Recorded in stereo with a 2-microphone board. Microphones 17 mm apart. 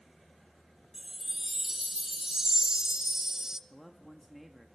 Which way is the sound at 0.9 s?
35° right (ahead or behind).